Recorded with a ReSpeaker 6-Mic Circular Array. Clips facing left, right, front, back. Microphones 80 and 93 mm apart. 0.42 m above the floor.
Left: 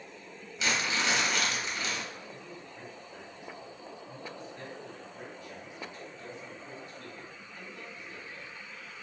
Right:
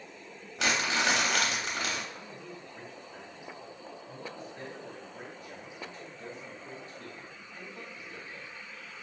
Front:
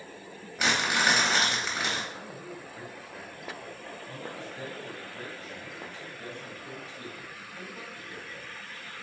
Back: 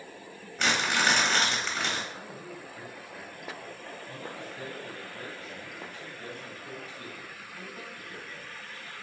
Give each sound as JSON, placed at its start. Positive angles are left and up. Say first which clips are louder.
{"t": 0.6, "sound": "crumpling", "louder": "right 2 dB, even", "azimuth_deg": -80, "distance_m": 1.0}
{"t": 2.1, "sound": "a man speaking", "louder": "right 1 dB, front 1 dB", "azimuth_deg": -50, "distance_m": 1.6}